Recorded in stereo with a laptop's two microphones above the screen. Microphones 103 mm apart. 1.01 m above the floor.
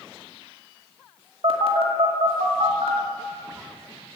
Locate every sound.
1.4 s a phone buzzing: 65° right (ahead or behind), 2.5 m